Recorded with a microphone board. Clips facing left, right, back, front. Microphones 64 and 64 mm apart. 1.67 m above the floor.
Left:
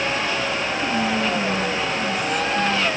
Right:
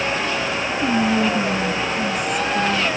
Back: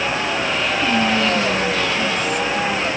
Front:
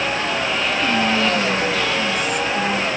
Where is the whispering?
85° right, 0.6 m.